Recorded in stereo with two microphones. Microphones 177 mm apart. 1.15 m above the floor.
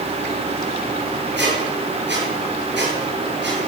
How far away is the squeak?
About 8 m.